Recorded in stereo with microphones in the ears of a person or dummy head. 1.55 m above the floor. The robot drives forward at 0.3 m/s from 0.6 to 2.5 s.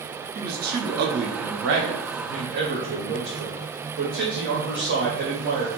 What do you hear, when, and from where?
0.3 s a man speaking: 55° right (ahead or behind), 0.6 m